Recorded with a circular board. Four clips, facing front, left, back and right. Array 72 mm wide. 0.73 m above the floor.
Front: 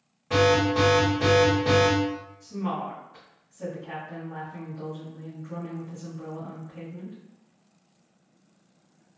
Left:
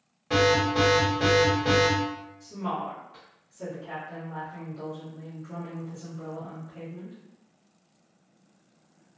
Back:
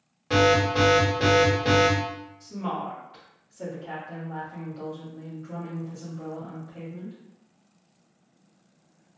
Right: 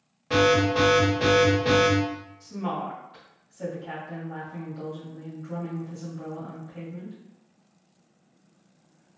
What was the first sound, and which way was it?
An alarm, 170° right.